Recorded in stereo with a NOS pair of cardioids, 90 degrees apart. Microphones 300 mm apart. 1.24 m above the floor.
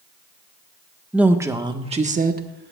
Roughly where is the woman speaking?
Ahead.